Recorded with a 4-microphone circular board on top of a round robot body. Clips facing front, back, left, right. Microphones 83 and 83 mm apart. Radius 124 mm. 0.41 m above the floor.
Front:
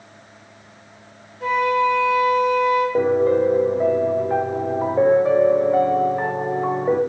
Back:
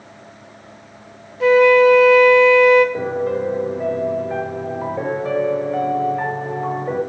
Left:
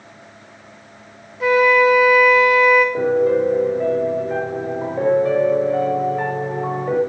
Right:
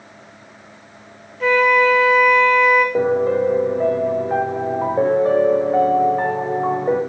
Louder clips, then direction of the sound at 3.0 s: Front 4 dB, left 1 dB; 50° right.